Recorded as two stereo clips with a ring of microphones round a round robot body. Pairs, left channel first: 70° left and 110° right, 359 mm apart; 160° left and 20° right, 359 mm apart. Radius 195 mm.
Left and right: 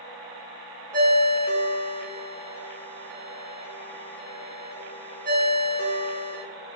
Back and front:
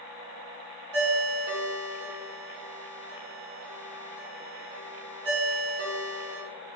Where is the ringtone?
30° right, 0.9 m.